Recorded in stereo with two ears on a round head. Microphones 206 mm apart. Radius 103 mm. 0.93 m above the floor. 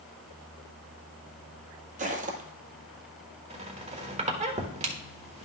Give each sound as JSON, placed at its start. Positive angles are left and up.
{"t": 2.0, "sound": "footsteps", "side_deg": -35, "distance_m": 1.5}
{"t": 3.5, "sound": "a squeak", "side_deg": -30, "distance_m": 1.3}